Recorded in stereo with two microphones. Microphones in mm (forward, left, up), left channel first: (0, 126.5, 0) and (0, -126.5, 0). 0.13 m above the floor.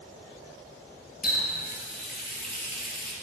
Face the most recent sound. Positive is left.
turn(degrees=35)  # may be behind; listen again after turning